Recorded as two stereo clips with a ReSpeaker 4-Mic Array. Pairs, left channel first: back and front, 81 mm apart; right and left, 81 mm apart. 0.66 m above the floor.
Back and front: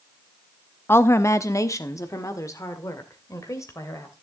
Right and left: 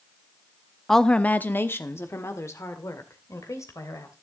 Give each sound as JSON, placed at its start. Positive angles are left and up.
{"t": 0.9, "sound": "a woman speaking", "azimuth_deg": -175, "distance_m": 0.6}